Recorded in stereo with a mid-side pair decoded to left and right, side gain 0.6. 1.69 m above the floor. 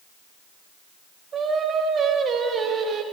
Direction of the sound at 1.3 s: 40° right.